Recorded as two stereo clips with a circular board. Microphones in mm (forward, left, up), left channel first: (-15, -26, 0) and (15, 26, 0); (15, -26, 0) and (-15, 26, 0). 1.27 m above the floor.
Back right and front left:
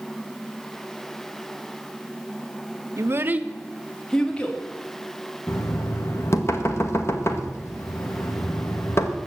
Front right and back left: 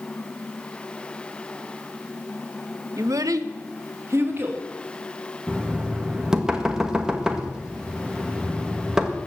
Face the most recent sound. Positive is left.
turn(degrees=-160)